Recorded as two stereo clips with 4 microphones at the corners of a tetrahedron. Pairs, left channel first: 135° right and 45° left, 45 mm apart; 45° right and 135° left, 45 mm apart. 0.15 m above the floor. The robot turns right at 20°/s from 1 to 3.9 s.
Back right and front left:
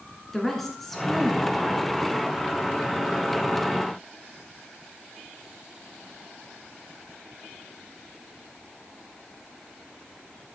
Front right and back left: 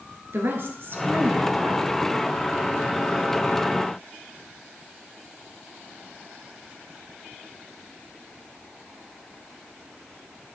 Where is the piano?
I don't hear a piano.